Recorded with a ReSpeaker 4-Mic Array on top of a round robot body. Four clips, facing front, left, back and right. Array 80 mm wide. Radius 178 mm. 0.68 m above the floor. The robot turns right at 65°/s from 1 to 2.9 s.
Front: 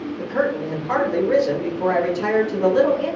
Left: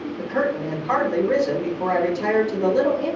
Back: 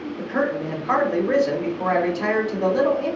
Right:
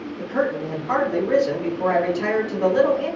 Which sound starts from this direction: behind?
A man speaking, at 0.2 s.